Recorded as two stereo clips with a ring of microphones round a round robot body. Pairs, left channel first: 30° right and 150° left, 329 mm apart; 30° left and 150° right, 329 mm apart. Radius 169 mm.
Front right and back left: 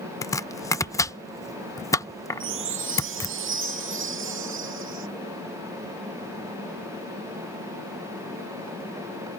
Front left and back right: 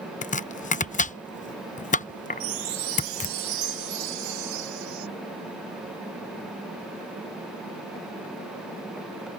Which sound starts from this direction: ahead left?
Chopping, at 0.2 s.